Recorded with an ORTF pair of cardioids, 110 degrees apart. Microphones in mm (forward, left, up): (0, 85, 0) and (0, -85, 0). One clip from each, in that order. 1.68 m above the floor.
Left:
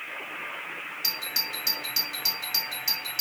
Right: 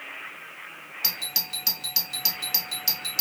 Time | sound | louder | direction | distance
1.0 | a doorbell | even | 35° right | 1.6 m